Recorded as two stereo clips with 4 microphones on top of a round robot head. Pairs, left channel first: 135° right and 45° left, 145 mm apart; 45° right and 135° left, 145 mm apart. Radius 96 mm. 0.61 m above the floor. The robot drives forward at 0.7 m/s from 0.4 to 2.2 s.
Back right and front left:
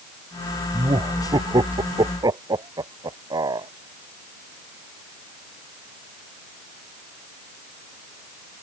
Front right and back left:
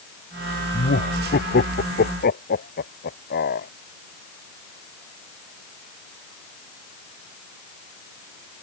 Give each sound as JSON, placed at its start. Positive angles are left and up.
{"t": 0.7, "sound": "laughter", "azimuth_deg": -20}